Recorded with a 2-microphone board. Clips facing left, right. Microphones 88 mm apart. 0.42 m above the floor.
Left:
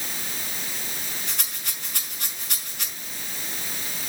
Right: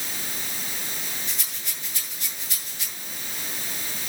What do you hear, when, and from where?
1.3 s a rattle: 65° left (ahead or behind), 5 m